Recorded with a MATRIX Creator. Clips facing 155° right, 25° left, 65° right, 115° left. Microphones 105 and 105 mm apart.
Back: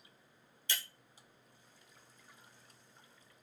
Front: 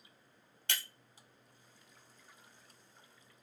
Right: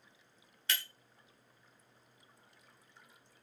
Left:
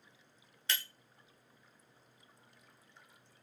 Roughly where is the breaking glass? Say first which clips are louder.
Front 1 dB, even; ahead left.